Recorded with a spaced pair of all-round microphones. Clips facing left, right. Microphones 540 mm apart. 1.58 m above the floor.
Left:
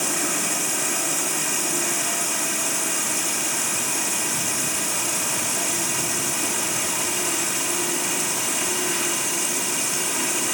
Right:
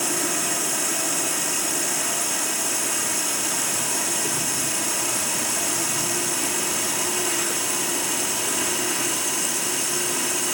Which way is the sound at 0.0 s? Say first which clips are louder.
Right 1 dB; 30° left (ahead or behind).